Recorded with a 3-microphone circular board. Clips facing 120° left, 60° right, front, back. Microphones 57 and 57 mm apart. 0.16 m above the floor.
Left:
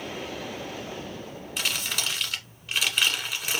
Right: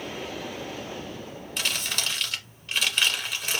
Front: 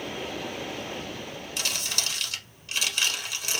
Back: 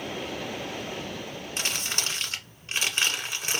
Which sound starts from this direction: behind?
Crumpling, at 1.6 s.